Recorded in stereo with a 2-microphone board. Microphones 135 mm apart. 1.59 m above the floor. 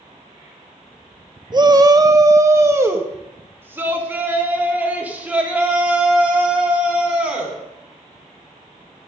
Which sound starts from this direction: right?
A shout, at 1.5 s.